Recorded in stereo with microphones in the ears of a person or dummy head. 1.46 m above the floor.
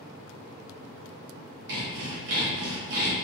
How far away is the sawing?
About 1.2 m.